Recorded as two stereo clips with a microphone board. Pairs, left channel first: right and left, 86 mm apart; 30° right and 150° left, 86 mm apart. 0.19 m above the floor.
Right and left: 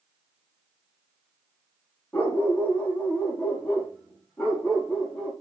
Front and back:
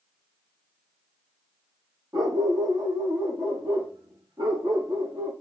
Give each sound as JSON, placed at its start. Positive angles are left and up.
{"t": 2.1, "sound": "a dog barking", "azimuth_deg": -165, "distance_m": 4.0}